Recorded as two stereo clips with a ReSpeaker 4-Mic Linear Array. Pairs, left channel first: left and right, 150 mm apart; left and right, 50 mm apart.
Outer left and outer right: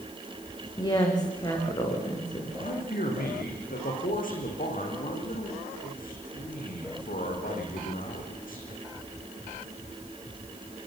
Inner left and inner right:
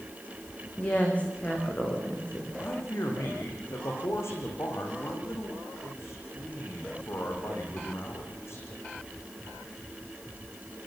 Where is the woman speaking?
25° left (ahead or behind), 6.5 m.